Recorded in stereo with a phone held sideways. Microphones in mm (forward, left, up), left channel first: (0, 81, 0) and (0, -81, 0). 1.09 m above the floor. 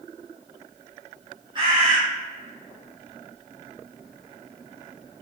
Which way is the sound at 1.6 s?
30° right (ahead or behind).